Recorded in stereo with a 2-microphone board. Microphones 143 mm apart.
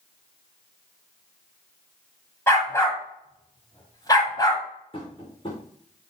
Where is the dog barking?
20° left (ahead or behind), 8.5 m; by 4.6 s 25° left (ahead or behind), 9 m.